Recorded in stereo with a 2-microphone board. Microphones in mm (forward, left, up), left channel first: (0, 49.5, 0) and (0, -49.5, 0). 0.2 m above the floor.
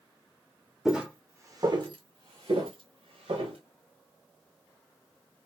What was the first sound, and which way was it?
Footsteps, centre (ahead or behind).